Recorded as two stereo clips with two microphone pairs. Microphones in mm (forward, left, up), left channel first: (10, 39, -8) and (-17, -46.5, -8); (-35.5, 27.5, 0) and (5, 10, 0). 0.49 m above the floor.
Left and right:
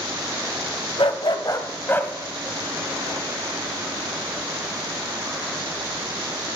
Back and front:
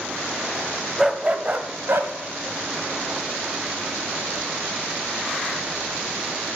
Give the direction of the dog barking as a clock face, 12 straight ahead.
10 o'clock.